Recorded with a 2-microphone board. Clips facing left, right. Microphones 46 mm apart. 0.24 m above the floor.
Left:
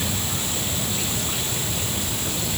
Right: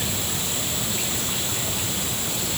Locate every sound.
Only background noise.